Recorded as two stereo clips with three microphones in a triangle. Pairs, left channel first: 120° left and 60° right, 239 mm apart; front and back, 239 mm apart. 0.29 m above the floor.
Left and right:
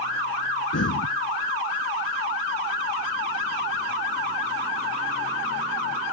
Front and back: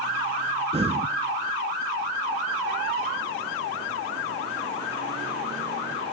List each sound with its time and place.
0.7 s breathing: 120° left